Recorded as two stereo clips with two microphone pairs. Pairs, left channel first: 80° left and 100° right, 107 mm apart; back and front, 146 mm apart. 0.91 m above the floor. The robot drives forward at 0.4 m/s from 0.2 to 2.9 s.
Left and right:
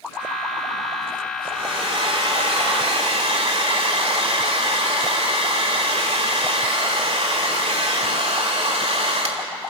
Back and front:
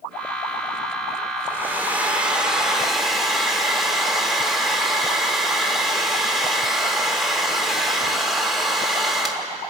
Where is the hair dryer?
75° right, 2.5 m; by 9.5 s 90° right, 2.5 m.